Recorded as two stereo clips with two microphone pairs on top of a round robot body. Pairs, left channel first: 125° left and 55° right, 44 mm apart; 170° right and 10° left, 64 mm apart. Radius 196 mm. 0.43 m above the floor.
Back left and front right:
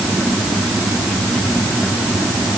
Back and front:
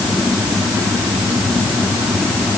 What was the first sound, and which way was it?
Only background noise.